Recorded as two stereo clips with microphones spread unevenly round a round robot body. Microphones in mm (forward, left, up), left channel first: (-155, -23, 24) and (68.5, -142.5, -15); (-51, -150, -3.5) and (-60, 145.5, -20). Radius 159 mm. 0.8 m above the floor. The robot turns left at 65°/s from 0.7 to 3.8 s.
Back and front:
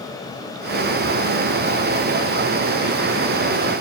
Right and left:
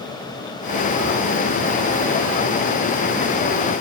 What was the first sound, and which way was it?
Only background noise.